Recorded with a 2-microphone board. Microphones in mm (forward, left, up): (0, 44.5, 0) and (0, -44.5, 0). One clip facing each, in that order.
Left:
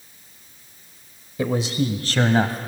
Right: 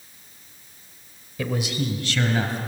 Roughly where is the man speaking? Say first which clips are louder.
Left 4 dB; left.